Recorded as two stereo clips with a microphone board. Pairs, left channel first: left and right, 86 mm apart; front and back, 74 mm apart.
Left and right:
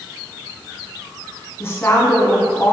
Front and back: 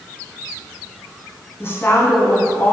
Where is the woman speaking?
40° left, 1.5 m.